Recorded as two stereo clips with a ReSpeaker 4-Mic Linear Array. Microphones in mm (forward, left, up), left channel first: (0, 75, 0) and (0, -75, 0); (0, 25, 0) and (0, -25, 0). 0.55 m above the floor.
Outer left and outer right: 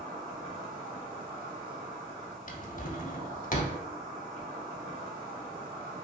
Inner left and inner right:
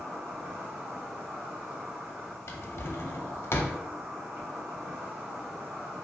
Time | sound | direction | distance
0.0 | an insect | 75° right (ahead or behind) | 1.5 m
2.5 | a drawer | 60° left (ahead or behind) | 0.5 m